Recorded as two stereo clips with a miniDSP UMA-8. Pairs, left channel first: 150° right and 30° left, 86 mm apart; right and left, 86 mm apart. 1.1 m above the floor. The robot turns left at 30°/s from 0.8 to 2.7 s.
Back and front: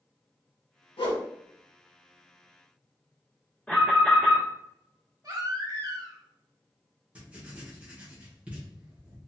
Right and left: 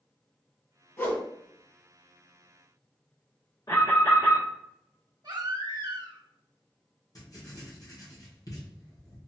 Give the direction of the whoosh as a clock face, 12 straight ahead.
5 o'clock.